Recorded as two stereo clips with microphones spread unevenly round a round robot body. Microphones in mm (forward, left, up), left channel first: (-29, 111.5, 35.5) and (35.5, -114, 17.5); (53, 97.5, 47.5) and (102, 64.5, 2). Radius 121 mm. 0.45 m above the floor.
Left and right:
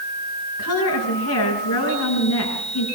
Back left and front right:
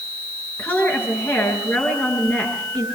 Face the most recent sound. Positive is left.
turn(degrees=85)